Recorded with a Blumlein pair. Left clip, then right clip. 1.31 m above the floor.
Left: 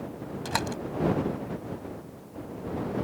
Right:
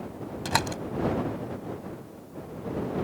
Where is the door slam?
10° right.